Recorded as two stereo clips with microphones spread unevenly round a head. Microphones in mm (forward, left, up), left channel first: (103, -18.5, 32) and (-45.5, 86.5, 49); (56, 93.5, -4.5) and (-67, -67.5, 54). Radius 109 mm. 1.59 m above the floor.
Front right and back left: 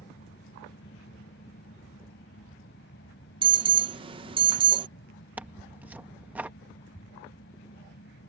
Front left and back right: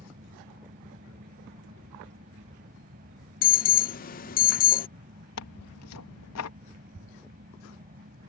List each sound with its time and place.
0.0 s a fan: 75° right
3.4 s an alarm: 105° left
5.4 s tearing paper: 65° left